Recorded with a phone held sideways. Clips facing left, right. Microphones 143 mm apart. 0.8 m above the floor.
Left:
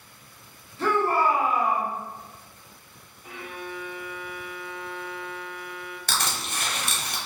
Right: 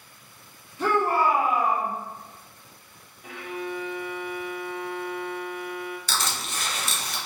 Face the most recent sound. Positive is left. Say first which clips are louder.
# even
turn(degrees=60)  # may be behind; listen again after turning